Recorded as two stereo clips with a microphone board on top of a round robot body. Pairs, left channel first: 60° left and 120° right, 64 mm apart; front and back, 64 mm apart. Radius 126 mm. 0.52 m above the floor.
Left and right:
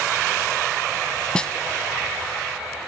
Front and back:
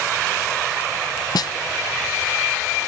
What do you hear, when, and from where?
1.4 s a snare drum: 20° right